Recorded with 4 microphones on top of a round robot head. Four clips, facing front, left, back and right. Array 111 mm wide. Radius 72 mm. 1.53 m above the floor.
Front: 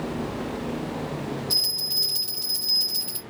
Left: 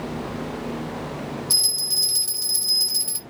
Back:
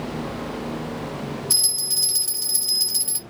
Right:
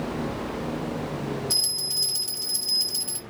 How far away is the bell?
About 2 m.